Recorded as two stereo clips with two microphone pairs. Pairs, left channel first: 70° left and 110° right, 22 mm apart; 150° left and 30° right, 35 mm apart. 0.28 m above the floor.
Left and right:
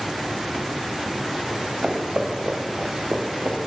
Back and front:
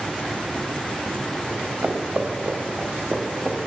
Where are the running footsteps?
75° right, 2 m; by 3.6 s 105° right, 1.1 m.